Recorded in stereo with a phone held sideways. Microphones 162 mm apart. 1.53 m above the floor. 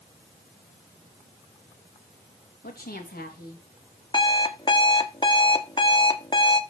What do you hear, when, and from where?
2.6 s a woman speaking: 70° left (ahead or behind), 3 m
4.1 s an alarm clock: 30° left (ahead or behind), 1.1 m